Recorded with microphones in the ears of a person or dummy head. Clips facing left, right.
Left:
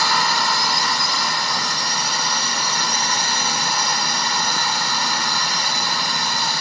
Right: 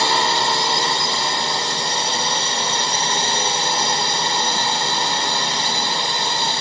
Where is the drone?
25° right (ahead or behind).